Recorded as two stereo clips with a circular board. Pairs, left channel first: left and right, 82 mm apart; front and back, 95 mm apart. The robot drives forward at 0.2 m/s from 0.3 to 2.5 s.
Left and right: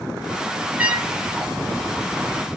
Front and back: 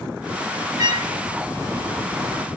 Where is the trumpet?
155° right, 2 m.